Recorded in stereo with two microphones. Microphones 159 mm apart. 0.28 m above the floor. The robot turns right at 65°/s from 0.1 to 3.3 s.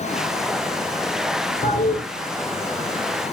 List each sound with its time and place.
1.6 s a toilet flushing: 50° left (ahead or behind), 2.5 m; by 2.0 s 75° left (ahead or behind), 2.5 m